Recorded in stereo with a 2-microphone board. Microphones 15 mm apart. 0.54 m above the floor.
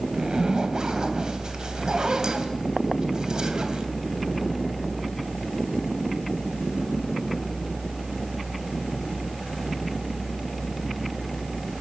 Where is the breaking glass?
No breaking glass in this recording.